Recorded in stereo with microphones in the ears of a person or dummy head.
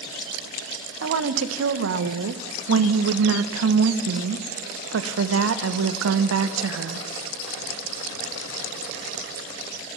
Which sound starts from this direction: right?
A woman speaking, at 1.0 s.